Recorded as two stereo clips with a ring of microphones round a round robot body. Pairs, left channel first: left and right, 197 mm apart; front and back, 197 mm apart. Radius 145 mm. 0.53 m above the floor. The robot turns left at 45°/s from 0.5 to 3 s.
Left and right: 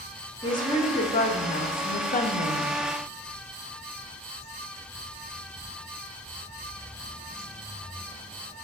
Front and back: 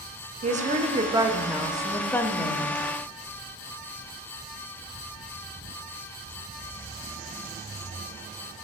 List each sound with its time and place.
0.4 s a woman speaking: 150° left, 0.8 m; by 2.8 s 50° left, 0.8 m